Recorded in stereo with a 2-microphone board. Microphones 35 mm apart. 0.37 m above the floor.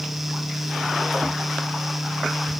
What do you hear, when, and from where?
Only background noise.